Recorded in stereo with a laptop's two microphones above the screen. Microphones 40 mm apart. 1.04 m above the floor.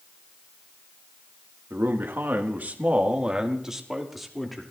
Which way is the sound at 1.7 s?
70° right (ahead or behind).